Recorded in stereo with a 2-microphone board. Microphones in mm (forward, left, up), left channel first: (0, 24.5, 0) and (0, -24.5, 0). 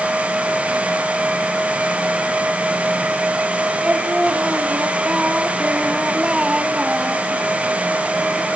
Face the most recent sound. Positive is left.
turn(degrees=-20)  # may be behind; listen again after turning